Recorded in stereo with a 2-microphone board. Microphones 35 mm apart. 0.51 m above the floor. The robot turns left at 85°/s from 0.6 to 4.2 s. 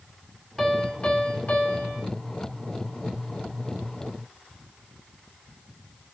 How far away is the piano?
About 1.5 m.